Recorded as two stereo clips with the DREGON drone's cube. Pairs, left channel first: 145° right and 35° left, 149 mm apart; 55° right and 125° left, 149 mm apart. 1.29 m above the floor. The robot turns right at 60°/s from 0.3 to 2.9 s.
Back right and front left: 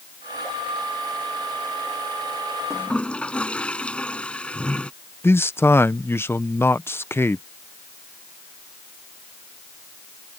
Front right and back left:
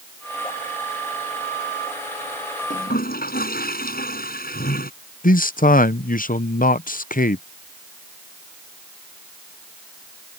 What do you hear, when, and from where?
2.7 s a toilet flushing: 75° right; by 4.9 s 65° right
5.2 s a man speaking: 70° right